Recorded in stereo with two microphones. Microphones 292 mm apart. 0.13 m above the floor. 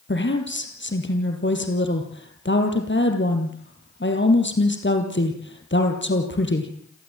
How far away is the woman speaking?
About 3.5 m.